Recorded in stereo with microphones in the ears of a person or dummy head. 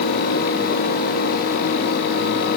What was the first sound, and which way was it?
Only background noise.